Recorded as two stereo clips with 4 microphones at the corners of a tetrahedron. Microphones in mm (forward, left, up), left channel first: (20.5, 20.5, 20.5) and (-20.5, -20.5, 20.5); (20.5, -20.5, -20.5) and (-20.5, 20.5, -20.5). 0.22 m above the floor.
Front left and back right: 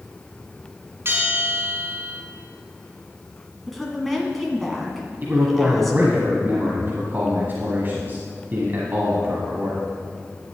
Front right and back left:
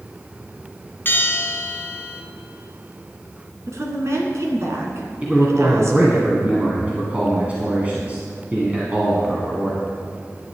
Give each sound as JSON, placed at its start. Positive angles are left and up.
{"t": 1.1, "sound": "a bell", "azimuth_deg": -95, "distance_m": 1.6}
{"t": 3.7, "sound": "a woman speaking", "azimuth_deg": 130, "distance_m": 2.0}
{"t": 5.2, "sound": "a man speaking", "azimuth_deg": -170, "distance_m": 1.5}